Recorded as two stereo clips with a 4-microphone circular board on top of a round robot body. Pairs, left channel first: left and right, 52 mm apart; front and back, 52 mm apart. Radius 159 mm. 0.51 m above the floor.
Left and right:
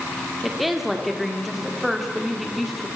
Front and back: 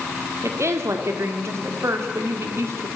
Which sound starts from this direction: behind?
A woman speaking, at 0.4 s.